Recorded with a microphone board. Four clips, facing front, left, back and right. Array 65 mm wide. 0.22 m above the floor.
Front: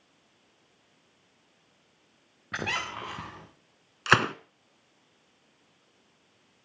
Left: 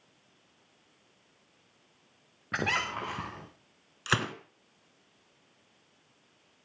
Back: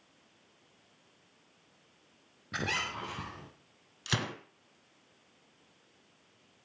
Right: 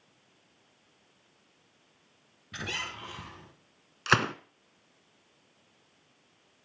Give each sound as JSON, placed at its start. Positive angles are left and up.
{"t": 2.5, "sound": "a squeak", "azimuth_deg": 65, "distance_m": 5.5}
{"t": 4.1, "sound": "a gunshot", "azimuth_deg": -20, "distance_m": 0.9}